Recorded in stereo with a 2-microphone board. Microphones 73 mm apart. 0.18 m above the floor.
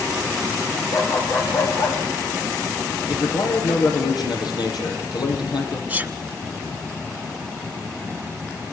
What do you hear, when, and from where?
0.9 s a dog barking: 45° left (ahead or behind), 6 m
3.1 s a man speaking: 70° left (ahead or behind), 6.5 m
5.9 s a sneeze: 20° right (ahead or behind), 1.2 m